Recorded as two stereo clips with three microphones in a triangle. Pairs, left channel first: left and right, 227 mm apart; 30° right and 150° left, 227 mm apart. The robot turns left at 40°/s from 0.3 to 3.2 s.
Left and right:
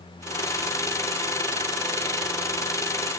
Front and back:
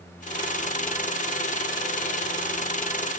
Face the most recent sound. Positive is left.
No sound to turn to.